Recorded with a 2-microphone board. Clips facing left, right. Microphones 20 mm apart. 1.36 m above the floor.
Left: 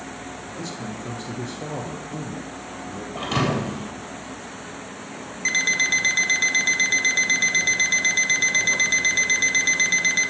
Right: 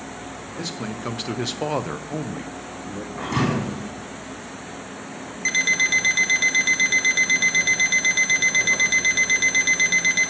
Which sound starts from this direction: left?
A thud, at 3.1 s.